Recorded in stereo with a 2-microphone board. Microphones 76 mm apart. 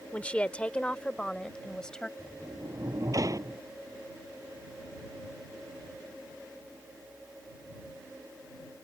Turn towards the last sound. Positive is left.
turn(degrees=-50)  # may be behind; listen again after turning